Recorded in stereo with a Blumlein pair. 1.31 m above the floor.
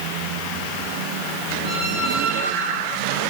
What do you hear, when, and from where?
1.6 s a squeak: 5° right, 7.5 m